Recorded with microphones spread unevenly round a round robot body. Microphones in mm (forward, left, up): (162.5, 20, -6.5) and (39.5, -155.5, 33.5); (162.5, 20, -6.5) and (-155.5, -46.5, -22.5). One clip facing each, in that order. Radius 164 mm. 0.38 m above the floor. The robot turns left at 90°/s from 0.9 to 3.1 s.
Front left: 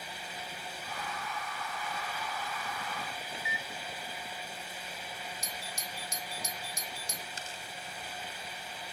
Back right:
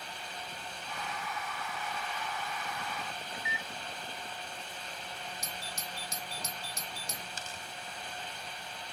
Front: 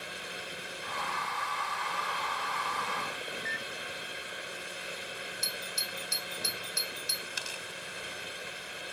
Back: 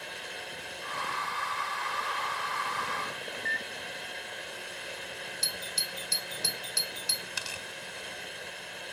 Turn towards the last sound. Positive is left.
turn(degrees=-165)